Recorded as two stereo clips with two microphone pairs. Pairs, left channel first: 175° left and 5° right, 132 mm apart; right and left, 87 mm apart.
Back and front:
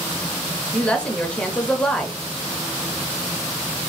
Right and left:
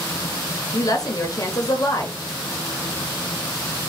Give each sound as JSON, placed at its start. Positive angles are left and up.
{"t": 0.7, "sound": "a woman speaking", "azimuth_deg": -105, "distance_m": 0.9}